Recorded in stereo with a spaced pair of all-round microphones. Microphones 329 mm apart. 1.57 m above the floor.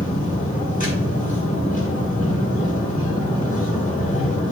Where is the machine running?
25° left (ahead or behind), 1.8 m.